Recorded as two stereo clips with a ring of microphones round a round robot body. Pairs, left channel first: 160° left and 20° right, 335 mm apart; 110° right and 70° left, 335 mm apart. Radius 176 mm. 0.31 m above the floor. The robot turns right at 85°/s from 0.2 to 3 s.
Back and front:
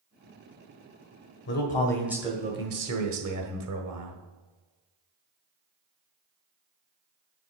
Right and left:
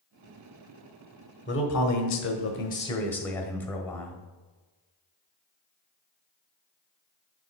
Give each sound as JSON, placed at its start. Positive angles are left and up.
{"t": 1.5, "sound": "a man speaking", "azimuth_deg": -160, "distance_m": 1.5}